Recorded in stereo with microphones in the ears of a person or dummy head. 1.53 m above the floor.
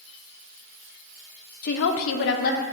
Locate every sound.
1.6 s a woman speaking: 55° left (ahead or behind), 0.6 m; by 2.6 s 40° left (ahead or behind), 1.0 m